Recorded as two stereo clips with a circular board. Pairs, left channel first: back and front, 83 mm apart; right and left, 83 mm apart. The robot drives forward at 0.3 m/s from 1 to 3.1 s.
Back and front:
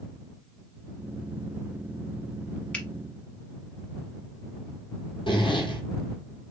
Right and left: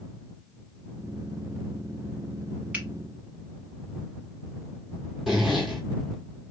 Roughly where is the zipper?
Behind.